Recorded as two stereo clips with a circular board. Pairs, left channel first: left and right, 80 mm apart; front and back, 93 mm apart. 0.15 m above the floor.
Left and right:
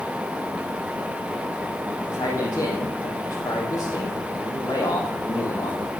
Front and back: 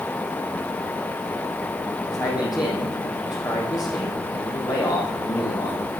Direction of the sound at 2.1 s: 45° left.